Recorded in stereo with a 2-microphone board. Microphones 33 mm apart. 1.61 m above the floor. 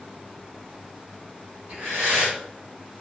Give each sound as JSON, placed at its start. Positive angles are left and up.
{"t": 1.7, "sound": "breathing", "side_deg": -65, "distance_m": 1.9}